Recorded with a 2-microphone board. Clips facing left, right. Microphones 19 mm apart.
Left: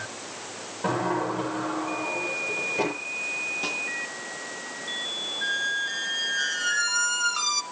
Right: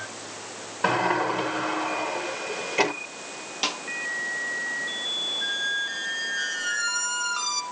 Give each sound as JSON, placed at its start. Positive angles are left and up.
{"t": 0.8, "sound": "a sliding door", "side_deg": -75, "distance_m": 6.5}
{"t": 3.6, "sound": "a snare drum", "side_deg": -55, "distance_m": 4.0}
{"t": 5.4, "sound": "a squeak", "side_deg": 10, "distance_m": 1.1}